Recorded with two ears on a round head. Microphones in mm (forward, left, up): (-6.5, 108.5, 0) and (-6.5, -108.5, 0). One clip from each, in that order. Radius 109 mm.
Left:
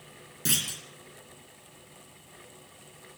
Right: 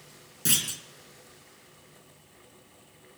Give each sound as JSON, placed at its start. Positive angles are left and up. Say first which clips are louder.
{"t": 0.5, "sound": "a clunk", "louder": "right 1 dB", "side_deg": -10, "distance_m": 3.0}